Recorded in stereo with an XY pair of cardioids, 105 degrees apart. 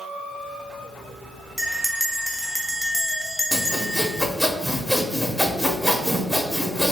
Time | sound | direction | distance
1.6 | a bell | straight ahead | 0.6 m
3.5 | sawing | 5° left | 0.6 m